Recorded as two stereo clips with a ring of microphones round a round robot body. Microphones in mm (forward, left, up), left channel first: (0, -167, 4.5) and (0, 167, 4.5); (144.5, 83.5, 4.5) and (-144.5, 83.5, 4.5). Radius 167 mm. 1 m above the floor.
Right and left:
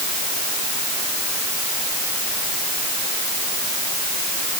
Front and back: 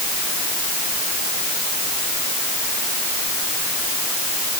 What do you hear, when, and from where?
Only background noise.